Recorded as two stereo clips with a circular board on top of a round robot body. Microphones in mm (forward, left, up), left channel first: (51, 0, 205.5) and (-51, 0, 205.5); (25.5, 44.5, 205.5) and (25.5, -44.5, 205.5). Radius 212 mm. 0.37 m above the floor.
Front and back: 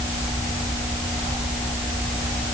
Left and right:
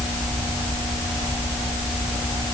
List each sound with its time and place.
Only background noise.